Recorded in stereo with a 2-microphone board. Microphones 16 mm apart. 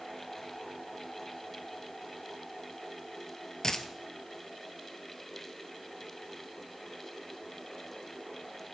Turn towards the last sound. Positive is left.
turn(degrees=35)  # may be behind; listen again after turning